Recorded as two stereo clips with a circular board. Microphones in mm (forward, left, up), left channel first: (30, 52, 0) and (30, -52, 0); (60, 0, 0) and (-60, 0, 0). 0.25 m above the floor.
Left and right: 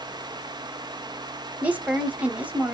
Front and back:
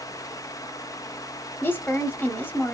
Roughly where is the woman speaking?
Ahead right.